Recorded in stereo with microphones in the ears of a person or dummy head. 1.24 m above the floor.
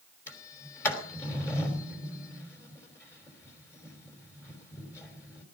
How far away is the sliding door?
About 3 m.